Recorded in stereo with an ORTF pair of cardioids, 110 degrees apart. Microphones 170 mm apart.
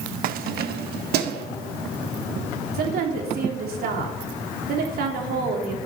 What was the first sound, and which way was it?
Keys jangling, 60° right.